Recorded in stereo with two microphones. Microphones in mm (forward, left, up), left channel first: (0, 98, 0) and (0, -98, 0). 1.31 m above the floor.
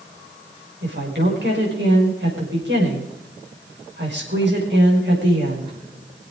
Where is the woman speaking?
65° right (ahead or behind), 5.5 m.